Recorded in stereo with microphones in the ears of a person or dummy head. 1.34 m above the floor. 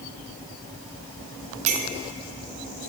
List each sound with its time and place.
1.7 s a clink: 35° right (ahead or behind), 0.5 m